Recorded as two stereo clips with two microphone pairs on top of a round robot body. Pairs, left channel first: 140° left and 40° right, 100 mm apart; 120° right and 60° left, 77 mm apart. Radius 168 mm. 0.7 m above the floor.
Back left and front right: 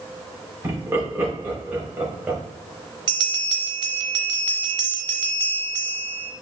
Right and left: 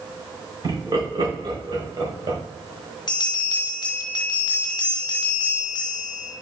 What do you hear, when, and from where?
0.6 s laughter: 25° left, 4.5 m; by 2.4 s 35° left, 5.5 m
3.1 s a bell: 85° right, 0.8 m